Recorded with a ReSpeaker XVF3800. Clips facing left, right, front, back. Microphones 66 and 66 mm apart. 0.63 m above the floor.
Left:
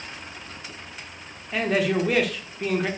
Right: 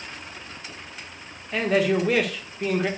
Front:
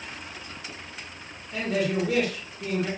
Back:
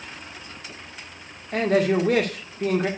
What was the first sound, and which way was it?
A man speaking, straight behind.